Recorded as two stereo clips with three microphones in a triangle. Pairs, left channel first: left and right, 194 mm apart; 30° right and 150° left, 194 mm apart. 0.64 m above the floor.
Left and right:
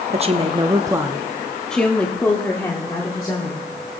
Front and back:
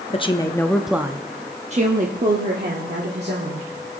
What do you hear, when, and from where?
0.1 s a woman speaking: 65° right, 0.8 m; by 4.0 s 155° left, 2 m